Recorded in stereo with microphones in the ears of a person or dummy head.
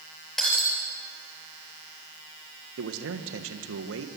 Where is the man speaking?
70° right (ahead or behind), 1.6 m.